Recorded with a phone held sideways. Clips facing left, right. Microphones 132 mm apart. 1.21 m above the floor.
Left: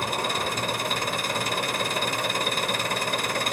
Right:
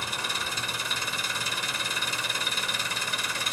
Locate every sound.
0.0 s an engine running: 55° left (ahead or behind), 1.4 m